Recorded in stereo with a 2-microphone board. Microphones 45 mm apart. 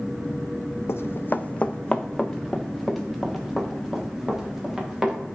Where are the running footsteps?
75° left (ahead or behind), 0.5 m; by 5.2 s 10° right (ahead or behind), 2.5 m.